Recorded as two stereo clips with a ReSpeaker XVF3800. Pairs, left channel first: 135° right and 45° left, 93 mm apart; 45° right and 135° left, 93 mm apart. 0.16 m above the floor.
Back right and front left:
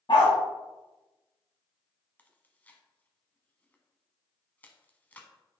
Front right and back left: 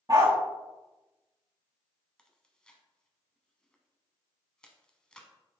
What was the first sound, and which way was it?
A dog barking, 175° right.